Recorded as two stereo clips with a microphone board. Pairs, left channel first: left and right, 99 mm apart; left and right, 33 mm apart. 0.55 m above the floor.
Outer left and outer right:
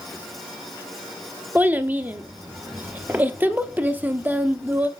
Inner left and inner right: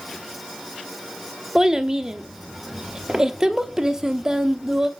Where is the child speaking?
20° right (ahead or behind), 0.8 m.